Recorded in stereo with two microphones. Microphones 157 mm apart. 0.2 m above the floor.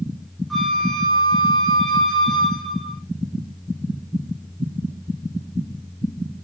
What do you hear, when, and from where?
0.5 s a flute: centre (ahead or behind), 1.5 m